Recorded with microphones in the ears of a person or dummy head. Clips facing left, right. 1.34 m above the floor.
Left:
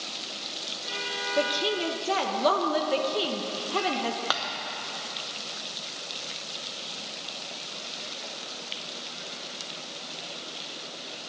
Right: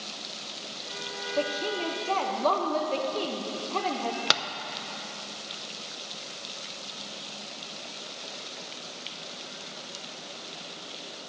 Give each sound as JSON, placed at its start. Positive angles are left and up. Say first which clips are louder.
{"t": 1.4, "sound": "a woman speaking", "louder": "left 2 dB", "side_deg": 15, "distance_m": 0.7}
{"t": 4.3, "sound": "tapping", "louder": "right 1 dB", "side_deg": -30, "distance_m": 0.7}